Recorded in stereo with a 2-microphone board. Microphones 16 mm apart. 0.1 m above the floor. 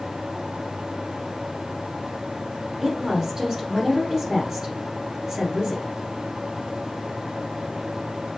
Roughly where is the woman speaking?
Right.